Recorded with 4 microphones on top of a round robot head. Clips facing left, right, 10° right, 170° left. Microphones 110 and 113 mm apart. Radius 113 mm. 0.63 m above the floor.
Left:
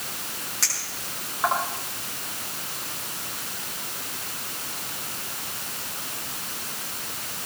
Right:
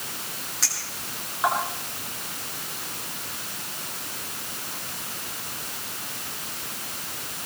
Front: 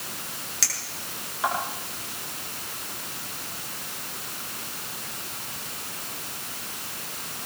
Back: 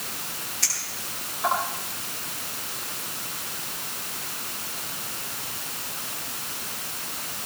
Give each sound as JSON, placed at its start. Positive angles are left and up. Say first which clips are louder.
{"t": 0.6, "sound": "a clink", "louder": "even, back 1 dB", "azimuth_deg": 0, "distance_m": 5.5}